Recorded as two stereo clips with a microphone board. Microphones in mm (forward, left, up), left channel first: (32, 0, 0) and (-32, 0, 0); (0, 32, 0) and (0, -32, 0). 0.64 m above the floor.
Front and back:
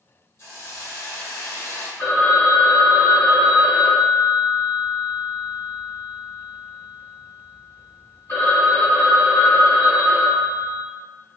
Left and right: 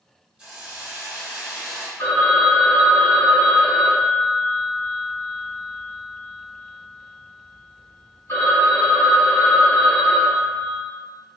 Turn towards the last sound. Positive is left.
turn(degrees=50)